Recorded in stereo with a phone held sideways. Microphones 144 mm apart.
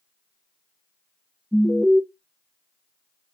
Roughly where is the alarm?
Centre.